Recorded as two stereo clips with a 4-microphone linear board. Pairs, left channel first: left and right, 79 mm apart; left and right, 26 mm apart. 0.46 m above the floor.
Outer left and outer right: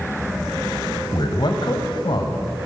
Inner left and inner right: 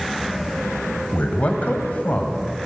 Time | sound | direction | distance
1.1 | a man speaking | 60° left (ahead or behind) | 3 m